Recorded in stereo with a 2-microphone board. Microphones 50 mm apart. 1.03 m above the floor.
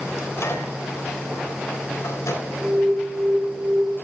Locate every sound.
0.2 s a microwave: 75° left (ahead or behind), 3.5 m
2.5 s an alarm: 5° right (ahead or behind), 4.5 m